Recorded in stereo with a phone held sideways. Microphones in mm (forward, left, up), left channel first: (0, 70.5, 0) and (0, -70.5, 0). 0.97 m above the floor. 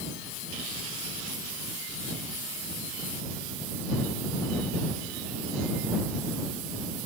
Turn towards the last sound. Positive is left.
No sound to turn to.